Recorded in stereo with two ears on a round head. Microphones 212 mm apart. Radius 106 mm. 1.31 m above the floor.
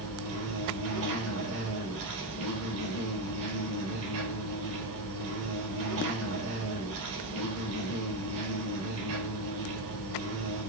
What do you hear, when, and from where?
0.0 s an insect: 65° right (ahead or behind), 3.5 m